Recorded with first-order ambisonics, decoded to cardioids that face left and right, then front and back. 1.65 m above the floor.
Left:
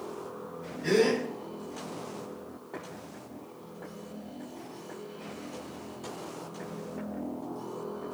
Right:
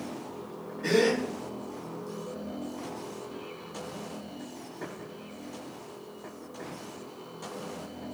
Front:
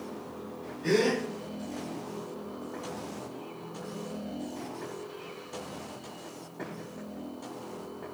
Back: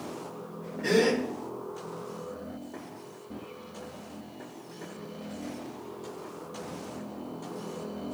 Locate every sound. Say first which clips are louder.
0.8 s a gasp: even, back 2 dB; 140° right, 1.6 m